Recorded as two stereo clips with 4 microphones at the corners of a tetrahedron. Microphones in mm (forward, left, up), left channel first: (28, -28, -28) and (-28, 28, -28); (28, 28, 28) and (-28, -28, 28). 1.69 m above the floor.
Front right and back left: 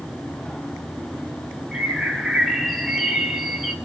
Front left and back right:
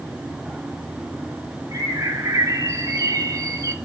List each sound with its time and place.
1.7 s a bird: 130° right, 1.9 m